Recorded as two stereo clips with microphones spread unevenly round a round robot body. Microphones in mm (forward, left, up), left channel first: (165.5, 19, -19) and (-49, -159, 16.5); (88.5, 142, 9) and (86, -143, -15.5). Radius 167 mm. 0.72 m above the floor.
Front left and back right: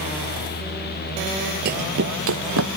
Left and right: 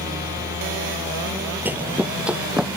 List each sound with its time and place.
1.6 s running footsteps: 175° right; by 2.8 s straight behind